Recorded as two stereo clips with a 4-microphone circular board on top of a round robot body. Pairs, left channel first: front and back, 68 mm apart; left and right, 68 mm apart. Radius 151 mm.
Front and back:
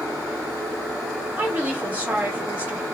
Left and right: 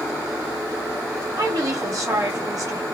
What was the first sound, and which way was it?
A woman speaking, 115° right.